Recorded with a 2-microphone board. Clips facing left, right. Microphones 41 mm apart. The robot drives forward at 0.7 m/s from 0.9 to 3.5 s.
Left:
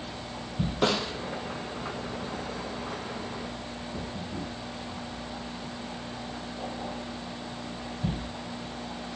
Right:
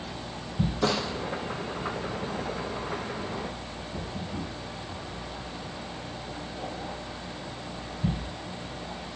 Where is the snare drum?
70° left (ahead or behind), 4 m.